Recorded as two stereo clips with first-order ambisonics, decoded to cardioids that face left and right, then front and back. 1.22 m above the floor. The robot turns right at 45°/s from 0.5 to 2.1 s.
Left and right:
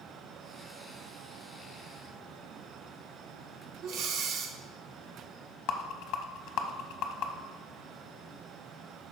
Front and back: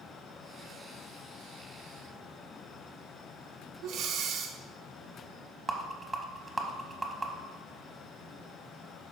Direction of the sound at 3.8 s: 130° right.